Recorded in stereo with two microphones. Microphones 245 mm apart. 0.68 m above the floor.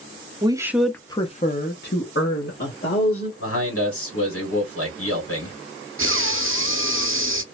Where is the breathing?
55° right (ahead or behind), 0.5 m.